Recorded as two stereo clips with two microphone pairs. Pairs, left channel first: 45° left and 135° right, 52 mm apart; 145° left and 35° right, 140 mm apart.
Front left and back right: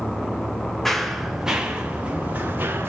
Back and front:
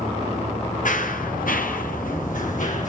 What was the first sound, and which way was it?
Running footsteps, 130° left.